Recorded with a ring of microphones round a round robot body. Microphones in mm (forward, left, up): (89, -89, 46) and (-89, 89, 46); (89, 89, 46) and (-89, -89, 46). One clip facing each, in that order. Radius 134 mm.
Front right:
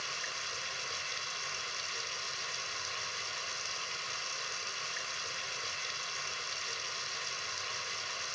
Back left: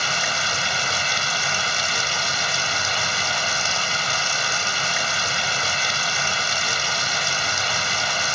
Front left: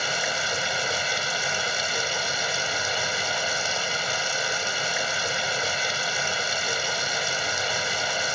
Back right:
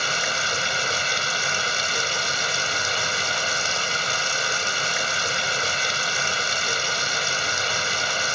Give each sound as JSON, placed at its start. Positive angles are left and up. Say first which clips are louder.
{"t": 0.0, "sound": "running water", "louder": "back left 17 dB, even", "azimuth_deg": 145}